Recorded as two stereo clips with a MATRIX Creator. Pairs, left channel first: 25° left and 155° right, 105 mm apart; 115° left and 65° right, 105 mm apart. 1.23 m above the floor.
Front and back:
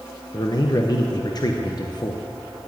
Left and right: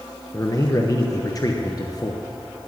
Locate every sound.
0.3 s a man speaking: 65° left, 1.0 m